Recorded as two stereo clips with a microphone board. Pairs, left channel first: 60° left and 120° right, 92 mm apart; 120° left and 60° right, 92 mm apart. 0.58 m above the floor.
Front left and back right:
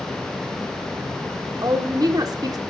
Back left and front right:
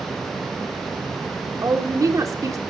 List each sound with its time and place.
1.6 s a woman speaking: 100° right, 1.8 m